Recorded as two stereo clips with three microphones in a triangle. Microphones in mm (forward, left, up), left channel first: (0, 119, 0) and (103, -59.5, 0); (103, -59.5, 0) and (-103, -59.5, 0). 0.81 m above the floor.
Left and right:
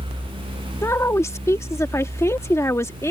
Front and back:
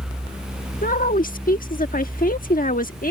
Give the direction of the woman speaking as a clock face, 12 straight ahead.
11 o'clock.